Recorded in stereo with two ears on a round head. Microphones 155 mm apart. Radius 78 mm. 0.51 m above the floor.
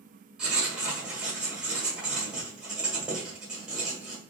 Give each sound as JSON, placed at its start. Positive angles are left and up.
{"t": 0.4, "sound": "writing", "side_deg": -5, "distance_m": 1.5}